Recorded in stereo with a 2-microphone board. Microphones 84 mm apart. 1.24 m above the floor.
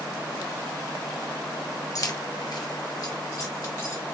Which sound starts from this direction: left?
Keys jangling, at 1.9 s.